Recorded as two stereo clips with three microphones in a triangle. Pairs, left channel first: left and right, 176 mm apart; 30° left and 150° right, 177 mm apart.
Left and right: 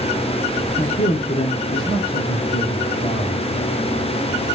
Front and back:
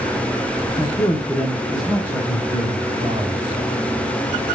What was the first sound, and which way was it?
A man speaking, 80° left.